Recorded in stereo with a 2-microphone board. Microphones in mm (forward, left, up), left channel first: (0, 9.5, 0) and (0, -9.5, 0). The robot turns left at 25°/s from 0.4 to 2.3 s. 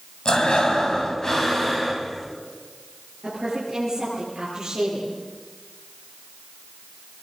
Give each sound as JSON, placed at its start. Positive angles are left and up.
{"t": 0.2, "sound": "breathing", "azimuth_deg": 50, "distance_m": 4.5}
{"t": 3.2, "sound": "a woman speaking", "side_deg": -20, "distance_m": 10.0}